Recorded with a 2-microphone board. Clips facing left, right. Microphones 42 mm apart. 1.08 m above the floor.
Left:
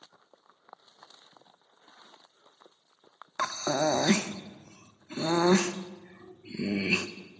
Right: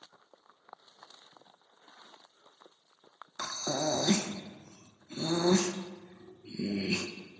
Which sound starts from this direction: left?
Breathing, at 3.4 s.